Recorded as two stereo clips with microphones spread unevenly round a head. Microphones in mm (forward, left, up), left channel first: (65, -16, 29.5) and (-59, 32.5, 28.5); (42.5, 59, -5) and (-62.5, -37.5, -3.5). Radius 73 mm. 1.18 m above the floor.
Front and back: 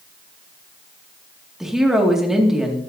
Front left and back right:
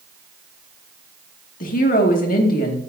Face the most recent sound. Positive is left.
turn(degrees=75)